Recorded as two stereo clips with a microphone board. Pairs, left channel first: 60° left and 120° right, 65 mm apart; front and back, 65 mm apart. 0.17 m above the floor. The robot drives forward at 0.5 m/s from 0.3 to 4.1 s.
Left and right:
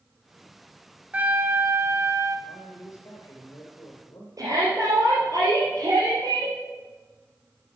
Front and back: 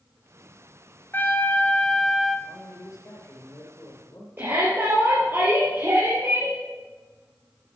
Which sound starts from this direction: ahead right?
A trumpet, at 1.1 s.